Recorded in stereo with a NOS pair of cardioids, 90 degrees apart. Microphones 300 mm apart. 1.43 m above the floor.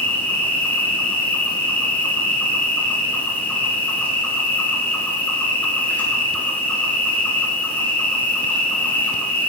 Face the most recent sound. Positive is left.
turn(degrees=5)